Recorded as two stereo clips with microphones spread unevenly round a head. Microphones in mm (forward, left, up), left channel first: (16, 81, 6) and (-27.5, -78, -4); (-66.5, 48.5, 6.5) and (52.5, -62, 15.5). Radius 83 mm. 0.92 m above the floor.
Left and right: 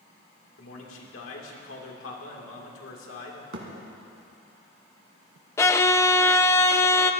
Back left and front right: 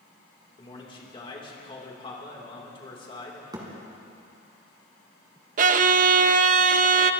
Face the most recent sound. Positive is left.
turn(degrees=0)